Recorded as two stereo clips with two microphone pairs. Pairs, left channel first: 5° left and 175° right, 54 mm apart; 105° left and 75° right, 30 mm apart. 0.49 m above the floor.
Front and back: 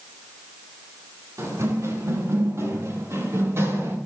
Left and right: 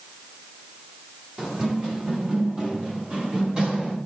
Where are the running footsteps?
140° right, 8.5 m; by 4.0 s 135° right, 7.5 m.